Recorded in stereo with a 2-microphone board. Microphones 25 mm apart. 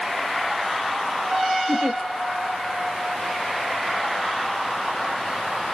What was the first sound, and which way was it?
A giggle, 65° right (ahead or behind).